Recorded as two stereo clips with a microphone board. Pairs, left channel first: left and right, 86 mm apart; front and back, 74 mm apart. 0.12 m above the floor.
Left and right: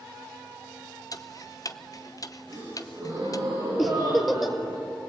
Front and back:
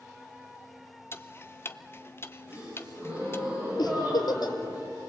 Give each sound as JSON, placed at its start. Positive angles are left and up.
{"t": 1.1, "sound": "ticking", "azimuth_deg": 50, "distance_m": 0.8}
{"t": 2.5, "sound": "a gasp", "azimuth_deg": -115, "distance_m": 8.5}
{"t": 3.8, "sound": "a giggle", "azimuth_deg": 0, "distance_m": 1.8}